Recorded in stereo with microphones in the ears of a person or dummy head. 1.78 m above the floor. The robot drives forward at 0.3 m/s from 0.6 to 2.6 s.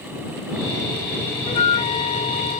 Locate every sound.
1.5 s a flute: 40° left (ahead or behind); by 2.6 s 45° left (ahead or behind)